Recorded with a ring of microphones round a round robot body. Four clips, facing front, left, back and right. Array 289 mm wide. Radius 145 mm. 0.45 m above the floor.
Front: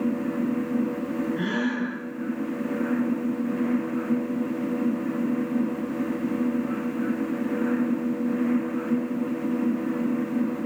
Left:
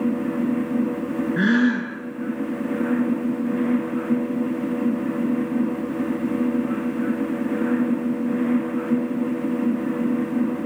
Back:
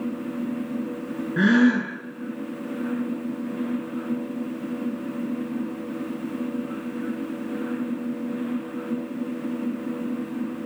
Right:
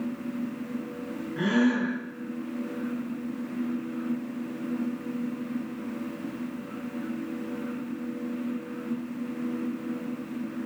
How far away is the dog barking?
No dog barking in this recording.